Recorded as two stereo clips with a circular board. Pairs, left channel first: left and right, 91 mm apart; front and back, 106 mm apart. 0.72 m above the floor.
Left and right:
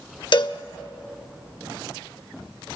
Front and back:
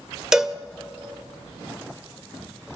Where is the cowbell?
95° left, 0.6 m.